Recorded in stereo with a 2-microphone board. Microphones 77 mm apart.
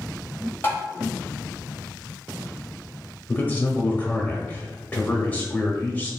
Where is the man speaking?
20° left (ahead or behind), 0.9 m.